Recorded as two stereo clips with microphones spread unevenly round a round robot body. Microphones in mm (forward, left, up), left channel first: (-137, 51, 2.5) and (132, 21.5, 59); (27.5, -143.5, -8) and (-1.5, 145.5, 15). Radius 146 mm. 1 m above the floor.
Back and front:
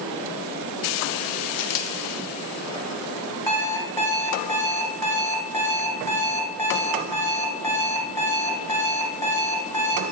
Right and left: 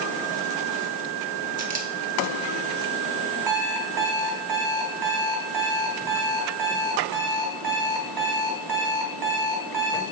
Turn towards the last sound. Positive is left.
turn(degrees=90)